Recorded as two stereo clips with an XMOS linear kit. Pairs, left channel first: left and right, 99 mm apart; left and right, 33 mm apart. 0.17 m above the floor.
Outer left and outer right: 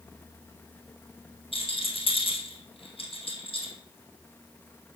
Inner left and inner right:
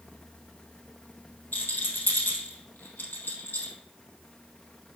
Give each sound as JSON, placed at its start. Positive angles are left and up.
{"t": 1.5, "sound": "a rattle", "side_deg": 75, "distance_m": 2.0}